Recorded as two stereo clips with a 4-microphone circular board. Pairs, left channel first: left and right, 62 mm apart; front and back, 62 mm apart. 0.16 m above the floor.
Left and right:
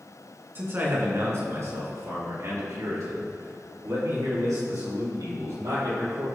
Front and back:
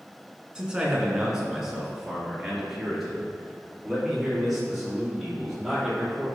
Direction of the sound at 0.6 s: 115° right.